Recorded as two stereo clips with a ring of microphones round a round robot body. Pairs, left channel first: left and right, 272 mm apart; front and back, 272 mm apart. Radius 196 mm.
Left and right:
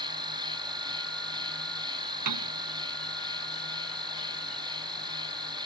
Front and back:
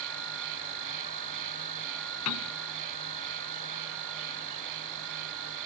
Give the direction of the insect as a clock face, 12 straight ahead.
5 o'clock.